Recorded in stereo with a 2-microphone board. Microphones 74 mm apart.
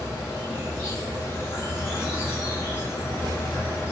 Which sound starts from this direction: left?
An insect, at 0.0 s.